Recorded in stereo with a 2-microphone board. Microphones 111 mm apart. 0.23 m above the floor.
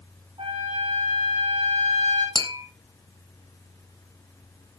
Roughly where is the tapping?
Right.